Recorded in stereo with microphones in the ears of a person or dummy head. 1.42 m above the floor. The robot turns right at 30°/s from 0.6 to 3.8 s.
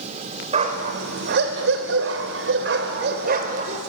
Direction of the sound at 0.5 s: 140° right.